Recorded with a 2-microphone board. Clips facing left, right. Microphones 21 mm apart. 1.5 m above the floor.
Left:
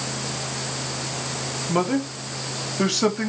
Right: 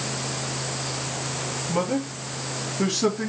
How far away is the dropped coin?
No dropped coin in this recording.